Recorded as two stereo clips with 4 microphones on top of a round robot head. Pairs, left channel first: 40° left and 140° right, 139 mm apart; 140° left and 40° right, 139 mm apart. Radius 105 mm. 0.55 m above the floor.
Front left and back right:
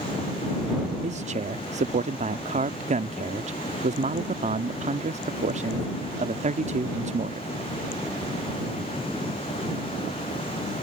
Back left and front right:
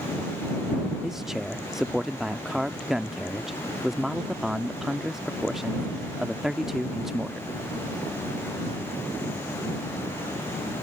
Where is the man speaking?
130° right.